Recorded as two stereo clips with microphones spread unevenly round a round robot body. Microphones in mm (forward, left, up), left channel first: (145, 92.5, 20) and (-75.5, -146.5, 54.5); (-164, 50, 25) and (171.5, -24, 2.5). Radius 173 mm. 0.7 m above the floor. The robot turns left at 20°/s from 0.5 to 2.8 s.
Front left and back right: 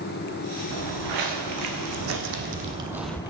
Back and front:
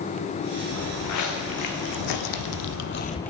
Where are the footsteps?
145° right, 3 m; by 3.3 s 100° left, 0.7 m.